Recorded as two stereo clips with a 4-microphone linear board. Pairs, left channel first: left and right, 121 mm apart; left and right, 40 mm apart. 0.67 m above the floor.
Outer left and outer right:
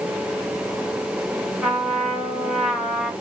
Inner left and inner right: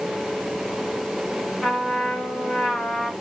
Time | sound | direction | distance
1.6 | a trumpet | 5° right (ahead or behind) | 2.5 m